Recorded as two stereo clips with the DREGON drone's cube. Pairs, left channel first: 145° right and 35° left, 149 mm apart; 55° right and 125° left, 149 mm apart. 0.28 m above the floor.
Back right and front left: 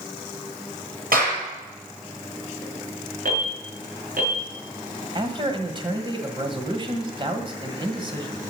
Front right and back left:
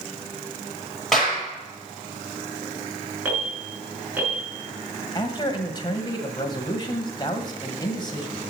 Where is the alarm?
45° left, 4.5 m.